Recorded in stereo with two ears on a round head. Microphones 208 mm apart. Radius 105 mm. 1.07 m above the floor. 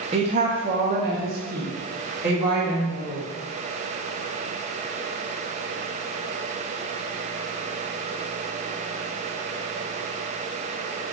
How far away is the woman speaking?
About 0.5 m.